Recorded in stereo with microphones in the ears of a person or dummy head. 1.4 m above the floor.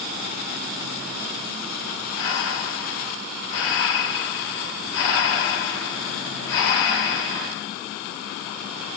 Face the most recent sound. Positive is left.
turn(degrees=55)  # may be behind; listen again after turning